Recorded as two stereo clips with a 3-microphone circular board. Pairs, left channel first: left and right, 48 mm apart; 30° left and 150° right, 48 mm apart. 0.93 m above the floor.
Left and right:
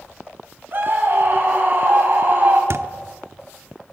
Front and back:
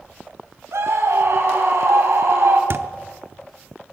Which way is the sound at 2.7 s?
115° right.